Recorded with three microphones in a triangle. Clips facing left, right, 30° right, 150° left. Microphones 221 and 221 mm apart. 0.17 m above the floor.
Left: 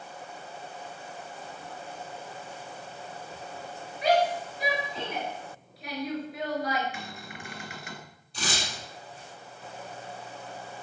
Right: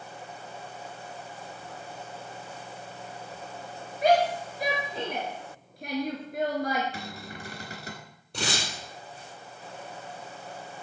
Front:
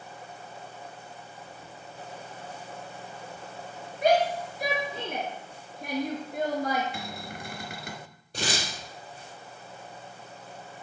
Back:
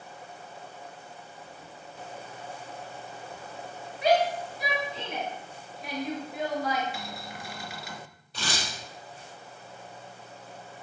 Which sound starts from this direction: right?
Tearing paper, at 8.3 s.